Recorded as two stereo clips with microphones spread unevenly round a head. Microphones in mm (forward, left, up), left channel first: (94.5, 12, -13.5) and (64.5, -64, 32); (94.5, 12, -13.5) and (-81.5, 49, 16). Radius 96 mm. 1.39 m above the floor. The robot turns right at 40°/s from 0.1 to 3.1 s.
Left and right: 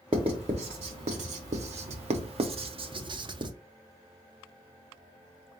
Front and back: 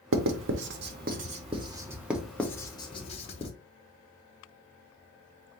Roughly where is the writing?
Behind.